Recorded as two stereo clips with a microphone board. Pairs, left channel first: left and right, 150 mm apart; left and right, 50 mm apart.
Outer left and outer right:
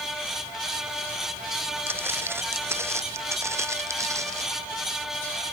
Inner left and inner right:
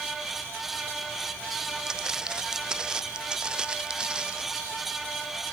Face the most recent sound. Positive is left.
turn(degrees=-20)  # may be behind; listen again after turning